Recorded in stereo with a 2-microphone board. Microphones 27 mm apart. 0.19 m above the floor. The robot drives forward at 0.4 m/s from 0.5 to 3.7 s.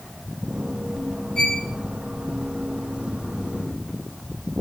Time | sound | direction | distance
1.4 | a violin | 25° left (ahead or behind) | 3.5 m